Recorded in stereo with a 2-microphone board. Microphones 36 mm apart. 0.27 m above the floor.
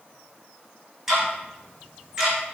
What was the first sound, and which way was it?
Ticking, 10° right (ahead or behind).